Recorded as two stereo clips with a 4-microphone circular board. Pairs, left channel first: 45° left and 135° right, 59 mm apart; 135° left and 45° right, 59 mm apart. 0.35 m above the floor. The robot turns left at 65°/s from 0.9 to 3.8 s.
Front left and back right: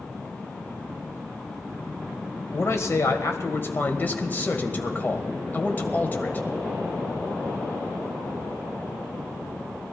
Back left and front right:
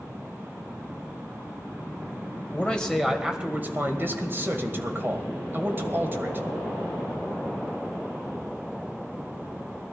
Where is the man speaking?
80° left, 1.9 m; by 6.5 s 5° right, 1.9 m.